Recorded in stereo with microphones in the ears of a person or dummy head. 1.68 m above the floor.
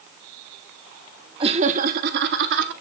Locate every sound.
1.4 s laughter: 30° right (ahead or behind), 0.8 m; by 2.7 s 65° right (ahead or behind), 1.1 m